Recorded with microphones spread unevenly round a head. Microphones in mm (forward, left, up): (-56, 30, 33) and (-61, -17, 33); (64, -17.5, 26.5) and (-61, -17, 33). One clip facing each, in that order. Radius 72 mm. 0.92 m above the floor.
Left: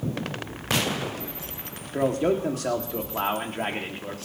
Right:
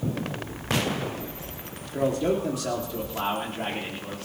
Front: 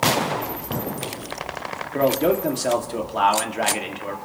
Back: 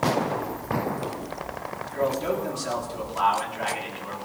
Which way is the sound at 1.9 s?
30° left.